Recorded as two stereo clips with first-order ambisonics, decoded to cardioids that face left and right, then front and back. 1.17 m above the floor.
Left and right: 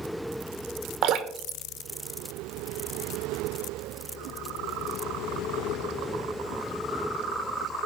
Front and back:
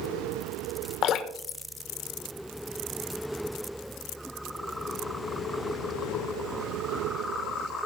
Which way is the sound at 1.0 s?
45° right.